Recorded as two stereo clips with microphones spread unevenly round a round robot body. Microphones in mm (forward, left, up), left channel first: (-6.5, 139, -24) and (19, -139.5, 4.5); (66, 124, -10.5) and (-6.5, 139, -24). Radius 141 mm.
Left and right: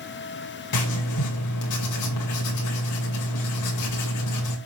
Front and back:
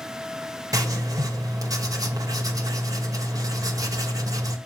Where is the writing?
125° left, 2 m.